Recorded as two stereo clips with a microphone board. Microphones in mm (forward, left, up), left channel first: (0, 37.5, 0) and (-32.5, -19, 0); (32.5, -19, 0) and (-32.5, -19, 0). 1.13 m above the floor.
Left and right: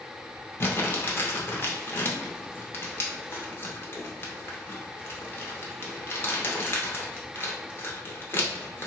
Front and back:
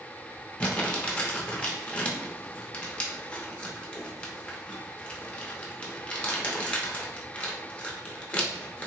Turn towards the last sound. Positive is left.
turn(degrees=55)